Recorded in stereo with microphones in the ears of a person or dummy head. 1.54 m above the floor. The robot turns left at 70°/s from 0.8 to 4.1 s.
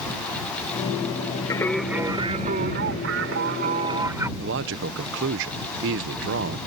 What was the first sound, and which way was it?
Singing, 20° left.